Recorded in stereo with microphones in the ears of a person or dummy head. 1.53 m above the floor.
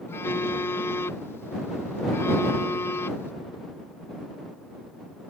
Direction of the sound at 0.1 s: 20° left (ahead or behind).